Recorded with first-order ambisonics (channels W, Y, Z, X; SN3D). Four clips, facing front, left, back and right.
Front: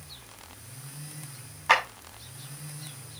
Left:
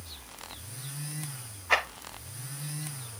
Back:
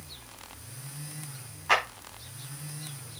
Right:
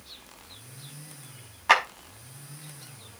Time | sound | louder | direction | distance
1.7 | a clap | right 5 dB, front 2 dB | 70° right | 4.5 m